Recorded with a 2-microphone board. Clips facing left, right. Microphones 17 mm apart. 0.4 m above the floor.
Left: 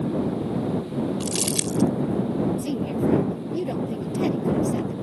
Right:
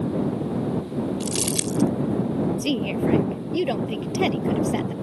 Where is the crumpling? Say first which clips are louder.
Even; centre (ahead or behind).